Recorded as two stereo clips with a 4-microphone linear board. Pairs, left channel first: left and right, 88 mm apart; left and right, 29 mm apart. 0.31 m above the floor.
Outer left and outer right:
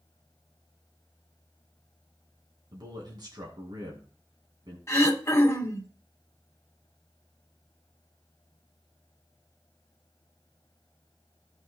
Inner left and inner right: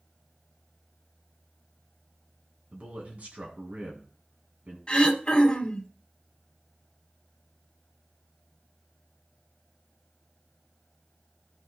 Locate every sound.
2.7 s a man speaking: 55° right (ahead or behind), 2 m
4.9 s throat clearing: 30° left (ahead or behind), 1.7 m